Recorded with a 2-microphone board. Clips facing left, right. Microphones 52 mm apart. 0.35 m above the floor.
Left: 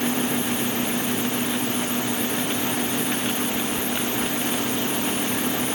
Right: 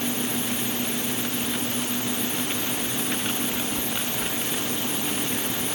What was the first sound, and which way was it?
Only background noise.